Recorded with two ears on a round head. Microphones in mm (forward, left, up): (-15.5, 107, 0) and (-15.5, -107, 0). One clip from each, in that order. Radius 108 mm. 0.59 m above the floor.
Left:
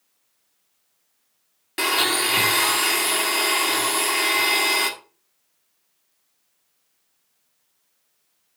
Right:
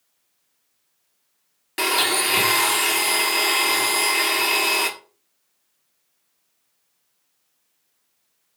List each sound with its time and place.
1.8 s a blender: 5° right (ahead or behind), 1.3 m